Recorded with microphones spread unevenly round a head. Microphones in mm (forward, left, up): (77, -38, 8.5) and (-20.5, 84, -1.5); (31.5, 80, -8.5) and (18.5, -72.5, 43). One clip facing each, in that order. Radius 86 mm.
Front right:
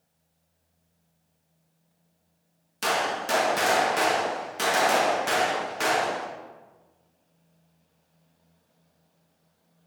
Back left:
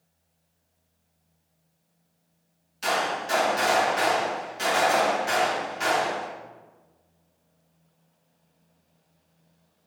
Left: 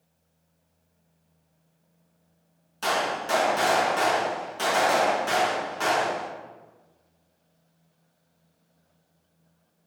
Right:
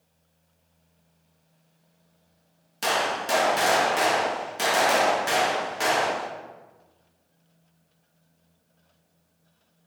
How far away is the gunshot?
About 0.9 m.